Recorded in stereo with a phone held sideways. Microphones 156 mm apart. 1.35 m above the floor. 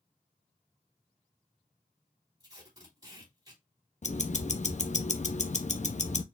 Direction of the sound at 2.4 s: 25° right (ahead or behind).